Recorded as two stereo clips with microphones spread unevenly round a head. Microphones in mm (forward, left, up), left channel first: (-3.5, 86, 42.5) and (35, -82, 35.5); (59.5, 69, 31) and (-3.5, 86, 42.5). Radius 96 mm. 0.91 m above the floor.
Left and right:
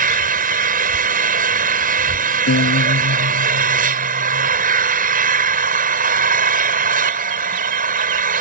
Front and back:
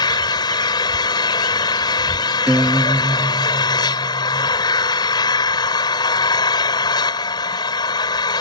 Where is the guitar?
95° left.